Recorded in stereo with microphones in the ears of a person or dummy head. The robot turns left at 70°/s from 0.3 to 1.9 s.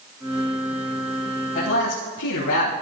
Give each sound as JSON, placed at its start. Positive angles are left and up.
{"t": 1.6, "sound": "a man speaking", "side_deg": 50, "distance_m": 1.7}